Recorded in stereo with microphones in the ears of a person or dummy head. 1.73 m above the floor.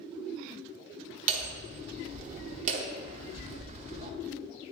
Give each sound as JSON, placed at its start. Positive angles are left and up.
{"t": 1.3, "sound": "hammering", "side_deg": -35, "distance_m": 0.8}